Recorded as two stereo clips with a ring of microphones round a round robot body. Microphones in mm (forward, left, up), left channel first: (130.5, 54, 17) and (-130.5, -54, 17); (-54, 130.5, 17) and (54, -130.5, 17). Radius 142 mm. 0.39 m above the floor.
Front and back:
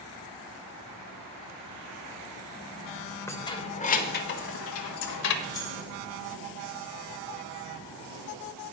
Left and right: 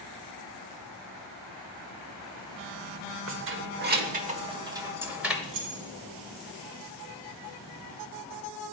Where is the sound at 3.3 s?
55° right, 1.0 m; by 5.3 s 20° left, 1.3 m.